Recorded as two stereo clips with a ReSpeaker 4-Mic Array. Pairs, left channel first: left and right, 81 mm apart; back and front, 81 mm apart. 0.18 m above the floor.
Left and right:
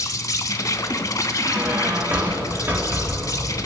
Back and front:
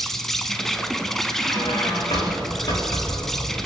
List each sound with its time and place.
0.0 s an insect: 95° left, 0.8 m
1.4 s a squeak: 155° right, 5 m